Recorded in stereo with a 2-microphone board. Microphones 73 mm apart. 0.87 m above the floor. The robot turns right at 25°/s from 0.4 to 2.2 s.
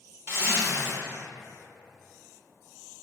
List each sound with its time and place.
0.3 s a zipper: 40° right (ahead or behind), 0.7 m; by 0.9 s 35° right (ahead or behind), 0.7 m